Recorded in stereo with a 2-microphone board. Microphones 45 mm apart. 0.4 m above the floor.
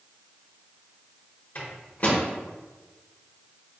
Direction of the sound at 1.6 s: 40° left (ahead or behind).